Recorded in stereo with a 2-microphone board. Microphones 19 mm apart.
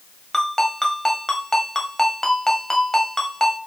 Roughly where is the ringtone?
Left.